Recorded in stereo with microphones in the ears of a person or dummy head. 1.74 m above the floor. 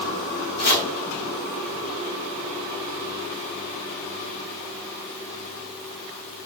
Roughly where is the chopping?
Left.